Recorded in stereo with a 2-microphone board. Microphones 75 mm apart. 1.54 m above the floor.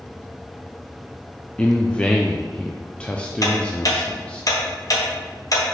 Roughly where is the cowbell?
I don't hear a cowbell.